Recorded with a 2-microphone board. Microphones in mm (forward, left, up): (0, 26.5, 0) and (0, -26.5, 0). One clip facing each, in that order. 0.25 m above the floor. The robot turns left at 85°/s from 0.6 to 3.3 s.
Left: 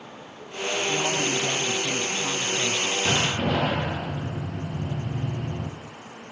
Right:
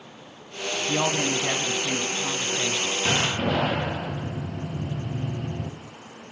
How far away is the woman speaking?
About 1.8 m.